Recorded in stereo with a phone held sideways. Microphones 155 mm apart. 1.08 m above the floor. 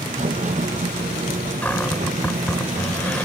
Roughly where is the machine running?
Right.